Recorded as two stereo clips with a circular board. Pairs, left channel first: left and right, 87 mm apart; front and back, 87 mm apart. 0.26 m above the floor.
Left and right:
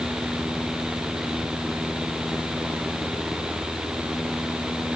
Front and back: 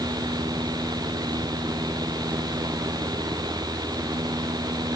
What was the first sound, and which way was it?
Only background noise.